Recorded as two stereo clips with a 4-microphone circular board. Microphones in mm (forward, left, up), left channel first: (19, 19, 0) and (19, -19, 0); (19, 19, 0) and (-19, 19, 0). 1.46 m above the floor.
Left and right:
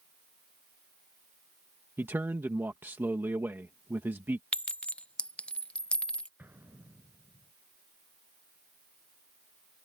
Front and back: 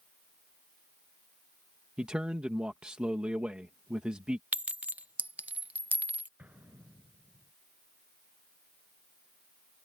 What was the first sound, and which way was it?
A man speaking, 115° right.